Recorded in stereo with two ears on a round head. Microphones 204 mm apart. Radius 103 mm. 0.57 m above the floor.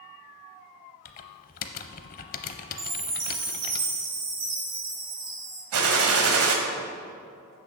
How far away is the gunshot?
About 1.4 m.